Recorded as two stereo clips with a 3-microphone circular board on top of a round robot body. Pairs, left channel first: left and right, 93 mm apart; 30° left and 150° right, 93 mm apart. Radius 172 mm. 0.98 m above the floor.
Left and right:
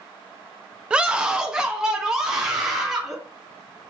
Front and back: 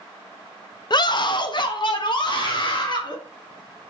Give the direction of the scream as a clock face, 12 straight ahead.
12 o'clock.